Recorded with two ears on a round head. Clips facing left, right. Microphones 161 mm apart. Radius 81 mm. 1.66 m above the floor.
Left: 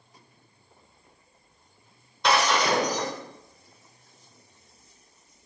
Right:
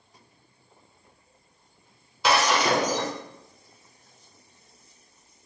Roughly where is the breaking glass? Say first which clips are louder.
Right 1 dB; centre.